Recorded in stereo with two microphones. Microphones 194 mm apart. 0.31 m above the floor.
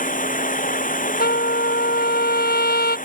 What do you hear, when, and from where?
0.0 s running water: 45° left (ahead or behind)
1.2 s a trumpet: 55° left (ahead or behind)